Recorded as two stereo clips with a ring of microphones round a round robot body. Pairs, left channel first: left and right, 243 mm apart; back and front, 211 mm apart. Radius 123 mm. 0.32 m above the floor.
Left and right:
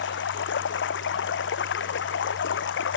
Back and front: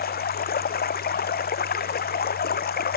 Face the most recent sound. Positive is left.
turn(degrees=135)